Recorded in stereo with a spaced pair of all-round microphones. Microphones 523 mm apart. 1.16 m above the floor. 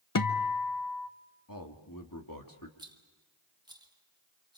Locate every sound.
0.1 s a guitar: 40° left (ahead or behind), 0.7 m
1.5 s a man speaking: 40° left (ahead or behind), 2.5 m
2.8 s a rattle: 10° right (ahead or behind), 1.4 m